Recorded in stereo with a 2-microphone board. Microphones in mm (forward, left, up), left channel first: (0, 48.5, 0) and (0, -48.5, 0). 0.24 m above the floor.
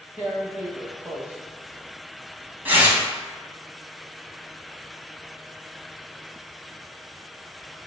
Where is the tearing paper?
20° right (ahead or behind), 0.9 m.